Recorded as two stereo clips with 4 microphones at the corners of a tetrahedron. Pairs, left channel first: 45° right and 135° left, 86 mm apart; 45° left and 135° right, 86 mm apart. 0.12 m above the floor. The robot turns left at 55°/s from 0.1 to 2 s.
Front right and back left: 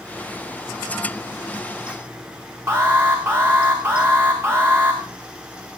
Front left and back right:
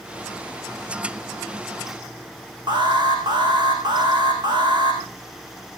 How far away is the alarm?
About 6 m.